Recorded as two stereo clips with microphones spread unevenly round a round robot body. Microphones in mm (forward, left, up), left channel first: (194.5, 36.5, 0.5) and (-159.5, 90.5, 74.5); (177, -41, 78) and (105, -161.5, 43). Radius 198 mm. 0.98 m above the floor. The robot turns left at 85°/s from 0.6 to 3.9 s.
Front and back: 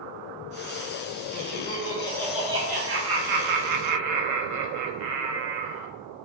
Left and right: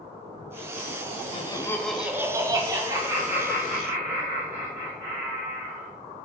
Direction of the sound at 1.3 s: Straight ahead.